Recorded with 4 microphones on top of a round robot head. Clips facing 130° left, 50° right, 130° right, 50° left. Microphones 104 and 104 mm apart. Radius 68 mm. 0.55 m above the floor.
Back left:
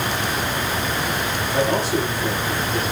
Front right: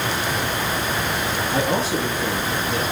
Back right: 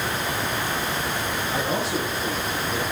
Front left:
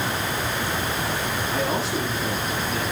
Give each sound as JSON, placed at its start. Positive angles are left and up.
{"t": 1.5, "sound": "a man speaking", "azimuth_deg": -60, "distance_m": 9.5}